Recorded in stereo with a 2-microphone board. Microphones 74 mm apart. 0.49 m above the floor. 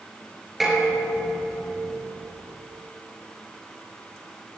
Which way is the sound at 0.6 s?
5° right (ahead or behind).